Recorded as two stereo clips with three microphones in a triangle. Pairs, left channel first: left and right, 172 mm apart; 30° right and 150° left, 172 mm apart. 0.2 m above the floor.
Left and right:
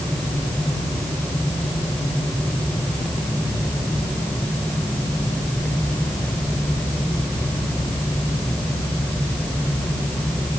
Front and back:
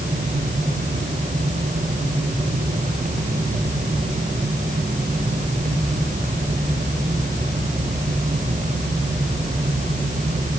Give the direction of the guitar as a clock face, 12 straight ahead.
I don't hear a guitar.